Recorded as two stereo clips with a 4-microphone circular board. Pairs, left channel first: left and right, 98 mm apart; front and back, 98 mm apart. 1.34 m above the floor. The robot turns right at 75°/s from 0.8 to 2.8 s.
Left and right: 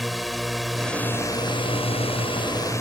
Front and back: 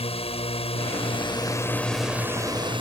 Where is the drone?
Straight ahead; by 2.8 s 150° left.